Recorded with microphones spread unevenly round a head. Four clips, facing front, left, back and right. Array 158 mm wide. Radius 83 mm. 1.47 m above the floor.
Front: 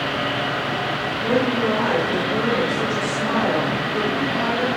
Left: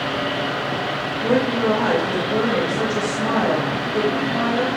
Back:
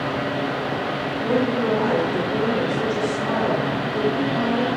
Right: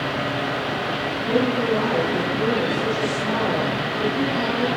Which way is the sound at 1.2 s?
90° left.